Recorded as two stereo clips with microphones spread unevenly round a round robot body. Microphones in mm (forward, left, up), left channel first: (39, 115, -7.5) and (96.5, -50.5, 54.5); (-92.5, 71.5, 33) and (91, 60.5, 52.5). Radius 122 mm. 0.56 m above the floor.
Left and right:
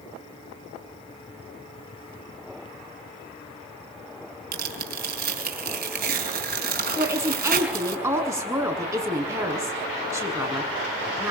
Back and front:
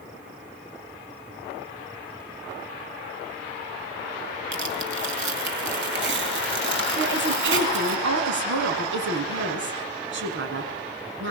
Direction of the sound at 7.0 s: 5° left.